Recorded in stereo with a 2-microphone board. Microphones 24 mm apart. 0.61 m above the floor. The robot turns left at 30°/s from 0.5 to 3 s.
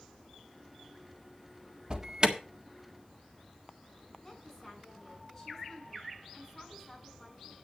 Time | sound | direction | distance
1.9 | an alarm | 35° right (ahead or behind) | 1.6 m
4.2 | a woman speaking | 20° left (ahead or behind) | 7 m